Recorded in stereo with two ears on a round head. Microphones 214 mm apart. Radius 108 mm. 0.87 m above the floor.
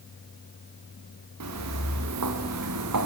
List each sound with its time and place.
1.4 s footsteps: 85° right, 7 m; by 3.1 s 80° right, 5 m